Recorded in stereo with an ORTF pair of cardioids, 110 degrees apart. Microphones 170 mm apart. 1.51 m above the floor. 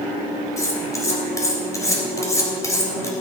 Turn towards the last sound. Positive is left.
turn(degrees=20)